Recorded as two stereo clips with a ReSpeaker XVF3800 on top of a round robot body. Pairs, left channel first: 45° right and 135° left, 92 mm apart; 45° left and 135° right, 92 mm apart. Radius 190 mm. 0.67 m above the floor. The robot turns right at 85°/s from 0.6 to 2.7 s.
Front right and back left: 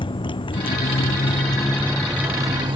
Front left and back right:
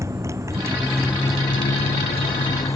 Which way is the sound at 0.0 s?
75° right.